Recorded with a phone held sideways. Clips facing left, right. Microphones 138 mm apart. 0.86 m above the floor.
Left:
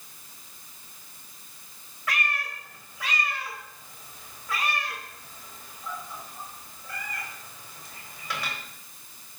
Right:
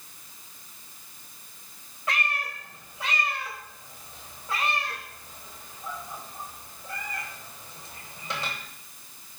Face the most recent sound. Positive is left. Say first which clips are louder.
# right 1 dB
turn(degrees=-30)  # may be behind; listen again after turning